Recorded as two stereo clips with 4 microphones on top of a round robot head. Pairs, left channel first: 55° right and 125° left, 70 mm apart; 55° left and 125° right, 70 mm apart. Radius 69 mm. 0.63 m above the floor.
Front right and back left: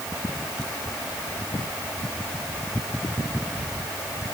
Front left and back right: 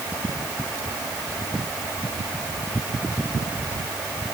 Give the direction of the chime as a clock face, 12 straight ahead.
No chime in this recording.